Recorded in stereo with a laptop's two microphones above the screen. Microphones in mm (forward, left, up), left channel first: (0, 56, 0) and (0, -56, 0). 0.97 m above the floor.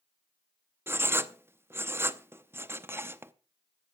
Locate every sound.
0.9 s writing: 20° right (ahead or behind), 0.7 m